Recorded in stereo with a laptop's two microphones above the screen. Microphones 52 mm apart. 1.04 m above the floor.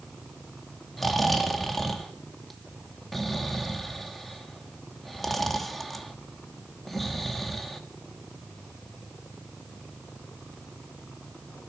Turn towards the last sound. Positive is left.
turn(degrees=5)  # may be behind; listen again after turning